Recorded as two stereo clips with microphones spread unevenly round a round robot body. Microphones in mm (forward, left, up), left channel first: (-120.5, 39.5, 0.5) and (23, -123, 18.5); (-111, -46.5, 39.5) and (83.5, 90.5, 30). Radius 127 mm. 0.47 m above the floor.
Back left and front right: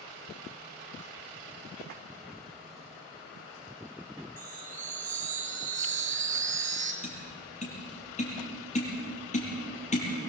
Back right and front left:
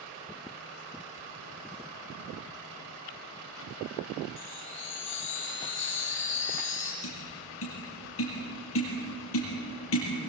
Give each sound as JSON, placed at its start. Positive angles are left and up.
{"t": 4.4, "sound": "a chime", "azimuth_deg": -100, "distance_m": 2.5}
{"t": 7.0, "sound": "tapping", "azimuth_deg": -175, "distance_m": 6.0}